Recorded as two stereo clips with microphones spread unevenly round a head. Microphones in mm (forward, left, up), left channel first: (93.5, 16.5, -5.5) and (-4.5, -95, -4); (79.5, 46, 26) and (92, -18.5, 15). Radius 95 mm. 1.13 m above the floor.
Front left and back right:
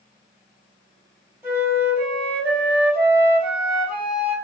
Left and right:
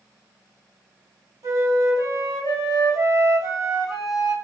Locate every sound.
1.4 s a flute: 65° right, 1.3 m